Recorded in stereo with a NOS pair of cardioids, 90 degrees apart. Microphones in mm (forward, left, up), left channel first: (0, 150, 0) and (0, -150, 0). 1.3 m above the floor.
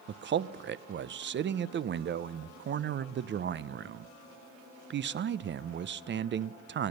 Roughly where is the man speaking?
Ahead right.